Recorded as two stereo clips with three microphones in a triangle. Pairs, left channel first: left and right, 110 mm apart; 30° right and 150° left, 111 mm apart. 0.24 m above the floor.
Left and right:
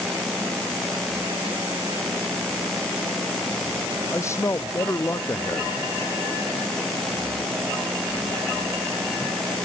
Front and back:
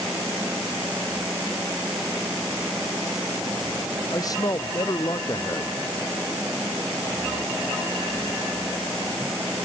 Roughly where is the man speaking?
Ahead left.